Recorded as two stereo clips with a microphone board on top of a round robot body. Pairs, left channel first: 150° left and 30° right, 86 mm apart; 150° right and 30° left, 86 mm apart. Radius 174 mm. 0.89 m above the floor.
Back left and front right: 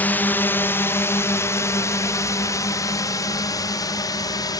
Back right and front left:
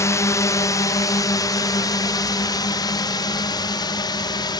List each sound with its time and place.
0.0 s a drone: 155° right; by 4.6 s 175° right